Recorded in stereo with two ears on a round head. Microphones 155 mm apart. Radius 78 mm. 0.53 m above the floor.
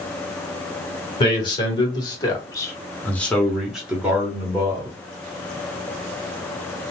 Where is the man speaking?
30° left (ahead or behind), 1.6 m; by 5.0 s 20° right (ahead or behind), 1.3 m.